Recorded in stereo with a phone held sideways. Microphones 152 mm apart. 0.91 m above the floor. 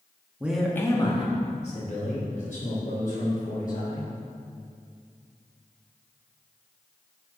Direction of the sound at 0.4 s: 10° right (ahead or behind).